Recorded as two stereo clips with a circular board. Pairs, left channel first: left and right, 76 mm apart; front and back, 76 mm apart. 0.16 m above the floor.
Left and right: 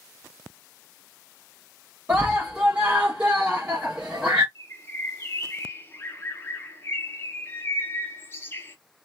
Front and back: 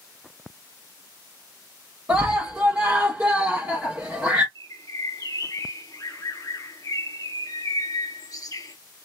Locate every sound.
2.1 s a scream: 140° right, 1.6 m
4.5 s a bird: 35° left, 1.2 m